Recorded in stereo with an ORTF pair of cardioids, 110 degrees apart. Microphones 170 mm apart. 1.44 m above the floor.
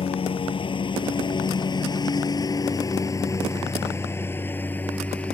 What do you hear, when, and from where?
0.0 s a lawn mower: 35° left; by 5.3 s 10° left